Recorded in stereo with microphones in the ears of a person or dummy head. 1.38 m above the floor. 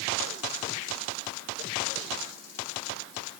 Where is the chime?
No chime in this recording.